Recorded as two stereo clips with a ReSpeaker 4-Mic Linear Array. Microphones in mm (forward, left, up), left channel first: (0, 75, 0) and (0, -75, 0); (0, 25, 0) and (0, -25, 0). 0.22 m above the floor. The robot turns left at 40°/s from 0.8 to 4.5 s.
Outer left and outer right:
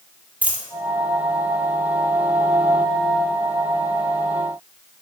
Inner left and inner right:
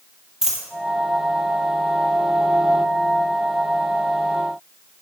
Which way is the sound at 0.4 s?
10° right (ahead or behind).